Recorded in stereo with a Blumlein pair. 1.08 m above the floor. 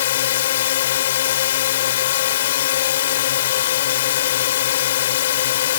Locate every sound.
0.0 s a drone: 60° left